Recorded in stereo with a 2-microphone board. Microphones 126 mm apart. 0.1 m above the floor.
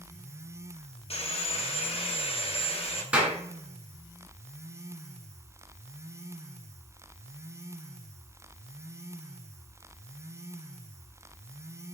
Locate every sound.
1.1 s sawing: 50° left (ahead or behind), 0.6 m
3.1 s a clap: 10° right (ahead or behind), 1.1 m